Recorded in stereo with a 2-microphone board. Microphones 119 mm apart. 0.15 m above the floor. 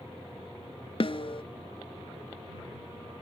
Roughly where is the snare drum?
Left.